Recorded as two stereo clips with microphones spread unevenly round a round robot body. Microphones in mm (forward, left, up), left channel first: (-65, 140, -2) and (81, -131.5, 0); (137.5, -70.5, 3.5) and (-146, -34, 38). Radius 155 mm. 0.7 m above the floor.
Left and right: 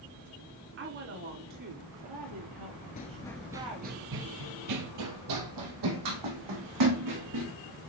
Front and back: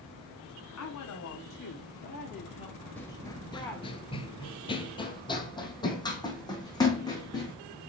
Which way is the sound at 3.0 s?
85° left.